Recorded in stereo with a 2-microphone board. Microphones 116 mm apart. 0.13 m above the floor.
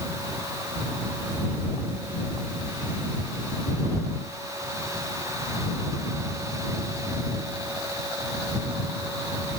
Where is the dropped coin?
No dropped coin in this recording.